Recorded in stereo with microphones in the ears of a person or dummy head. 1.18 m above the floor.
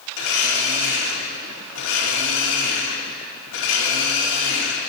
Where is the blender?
80° left, 2.5 m.